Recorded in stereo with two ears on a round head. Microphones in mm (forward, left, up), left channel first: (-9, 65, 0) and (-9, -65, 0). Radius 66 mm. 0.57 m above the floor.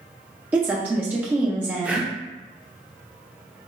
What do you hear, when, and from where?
0.5 s a woman speaking: 15° right (ahead or behind), 0.6 m
1.8 s breathing: 10° right (ahead or behind), 0.6 m